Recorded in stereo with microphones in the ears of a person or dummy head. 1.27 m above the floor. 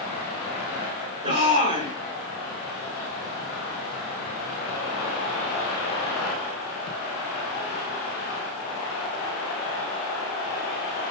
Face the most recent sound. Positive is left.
turn(degrees=-35)  # may be behind; listen again after turning